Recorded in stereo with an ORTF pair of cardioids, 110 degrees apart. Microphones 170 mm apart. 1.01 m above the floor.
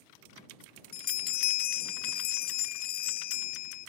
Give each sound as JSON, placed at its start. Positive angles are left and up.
{"t": 0.9, "sound": "a bell", "azimuth_deg": 60}